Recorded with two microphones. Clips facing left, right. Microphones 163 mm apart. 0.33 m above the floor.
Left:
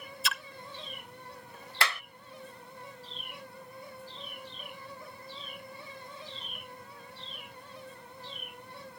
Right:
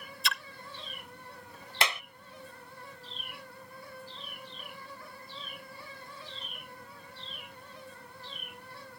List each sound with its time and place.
0.2 s a splash: centre (ahead or behind)
1.8 s a clap: 20° right (ahead or behind)